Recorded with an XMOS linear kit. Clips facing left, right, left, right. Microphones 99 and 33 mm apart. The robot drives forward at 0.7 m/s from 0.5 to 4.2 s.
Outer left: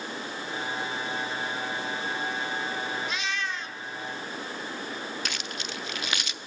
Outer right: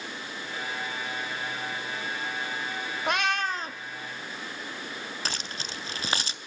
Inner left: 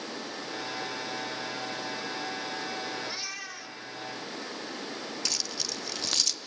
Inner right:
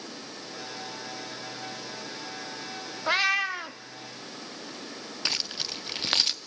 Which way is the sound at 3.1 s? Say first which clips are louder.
Outer right 5 dB, inner right 13 dB; 65° right (ahead or behind).